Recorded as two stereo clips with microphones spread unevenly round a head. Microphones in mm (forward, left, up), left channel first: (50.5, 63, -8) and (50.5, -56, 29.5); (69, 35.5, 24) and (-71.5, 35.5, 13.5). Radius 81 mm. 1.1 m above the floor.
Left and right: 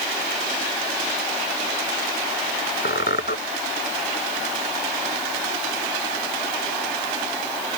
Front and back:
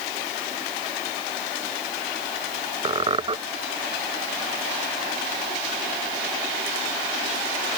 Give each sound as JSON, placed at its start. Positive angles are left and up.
{"t": 2.9, "sound": "a squeak", "azimuth_deg": 125}